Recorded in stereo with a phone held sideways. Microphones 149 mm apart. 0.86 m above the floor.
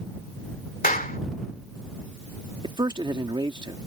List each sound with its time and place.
0.8 s a clap: 70° left (ahead or behind)
2.6 s a man speaking: 30° right (ahead or behind)